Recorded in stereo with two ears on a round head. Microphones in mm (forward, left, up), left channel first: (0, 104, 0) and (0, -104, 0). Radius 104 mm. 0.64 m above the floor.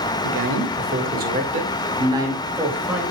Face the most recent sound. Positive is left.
turn(degrees=-5)  # may be behind; listen again after turning